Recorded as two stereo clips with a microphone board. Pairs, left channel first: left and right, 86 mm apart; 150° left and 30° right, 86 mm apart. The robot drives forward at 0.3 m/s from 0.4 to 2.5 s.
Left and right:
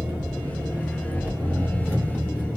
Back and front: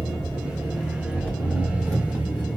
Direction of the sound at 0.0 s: 115° right.